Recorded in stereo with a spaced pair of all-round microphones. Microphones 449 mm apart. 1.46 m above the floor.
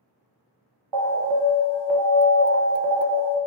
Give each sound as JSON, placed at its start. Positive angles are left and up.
{"t": 0.9, "sound": "an alarm", "side_deg": -70, "distance_m": 0.6}